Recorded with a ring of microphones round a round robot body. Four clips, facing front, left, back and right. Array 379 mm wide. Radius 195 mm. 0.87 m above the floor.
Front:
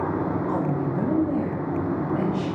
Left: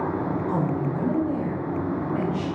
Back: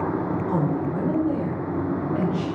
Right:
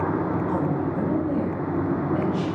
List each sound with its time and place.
0.5 s a woman speaking: 170° left, 2.5 m; by 2.5 s 170° right, 4 m